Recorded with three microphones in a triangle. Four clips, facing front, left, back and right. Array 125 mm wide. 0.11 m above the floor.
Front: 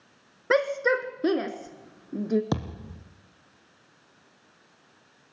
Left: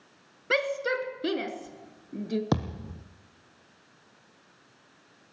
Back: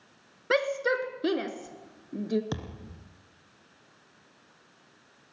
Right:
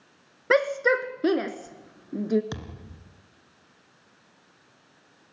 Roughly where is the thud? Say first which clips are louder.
Left 10 dB, front 7 dB; ahead left.